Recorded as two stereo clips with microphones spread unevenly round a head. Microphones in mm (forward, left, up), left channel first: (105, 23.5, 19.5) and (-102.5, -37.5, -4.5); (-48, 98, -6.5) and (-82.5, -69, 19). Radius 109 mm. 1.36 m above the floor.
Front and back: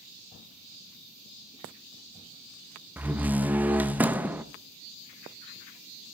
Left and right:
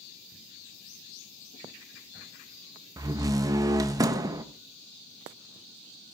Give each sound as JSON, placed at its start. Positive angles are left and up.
{"t": 3.0, "sound": "a door slam", "azimuth_deg": -75, "distance_m": 0.6}